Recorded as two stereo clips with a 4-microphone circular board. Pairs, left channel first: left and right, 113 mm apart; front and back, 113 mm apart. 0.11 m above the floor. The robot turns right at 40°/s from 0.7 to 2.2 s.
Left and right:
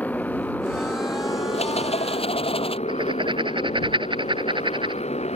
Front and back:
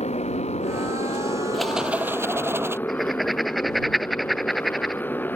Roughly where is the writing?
Right.